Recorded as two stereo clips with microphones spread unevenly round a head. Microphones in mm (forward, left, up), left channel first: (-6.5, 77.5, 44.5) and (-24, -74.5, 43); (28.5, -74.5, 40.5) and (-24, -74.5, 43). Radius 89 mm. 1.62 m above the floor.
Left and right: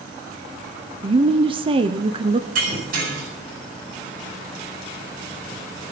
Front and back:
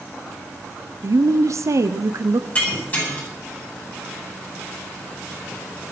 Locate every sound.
1.0 s a woman speaking: 155° right, 1.0 m
2.5 s breaking glass: 60° right, 8.5 m